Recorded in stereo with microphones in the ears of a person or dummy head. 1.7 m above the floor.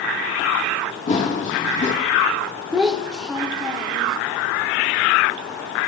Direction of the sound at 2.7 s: Centre (ahead or behind).